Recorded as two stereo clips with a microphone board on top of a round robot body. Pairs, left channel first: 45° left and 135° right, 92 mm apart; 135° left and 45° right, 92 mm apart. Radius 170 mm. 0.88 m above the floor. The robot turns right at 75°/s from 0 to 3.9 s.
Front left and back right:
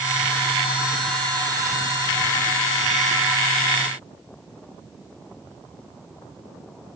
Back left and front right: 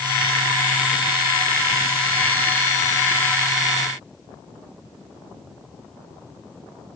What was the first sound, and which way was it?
Only background noise.